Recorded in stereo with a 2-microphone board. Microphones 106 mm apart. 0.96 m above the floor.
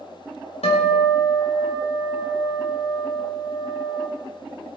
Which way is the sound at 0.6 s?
80° left.